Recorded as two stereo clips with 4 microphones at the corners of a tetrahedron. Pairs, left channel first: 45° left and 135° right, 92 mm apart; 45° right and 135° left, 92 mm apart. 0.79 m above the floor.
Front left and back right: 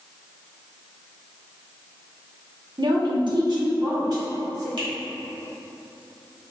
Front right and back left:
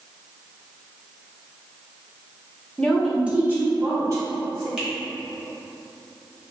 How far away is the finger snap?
About 1.5 m.